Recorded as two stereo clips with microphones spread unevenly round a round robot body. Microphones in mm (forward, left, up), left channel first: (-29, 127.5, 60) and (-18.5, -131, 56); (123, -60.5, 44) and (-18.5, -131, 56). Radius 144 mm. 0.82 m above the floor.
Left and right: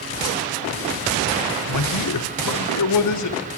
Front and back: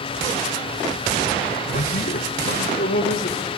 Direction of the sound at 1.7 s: 80° left.